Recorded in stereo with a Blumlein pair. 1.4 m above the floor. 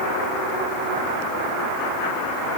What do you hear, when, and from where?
Only background noise.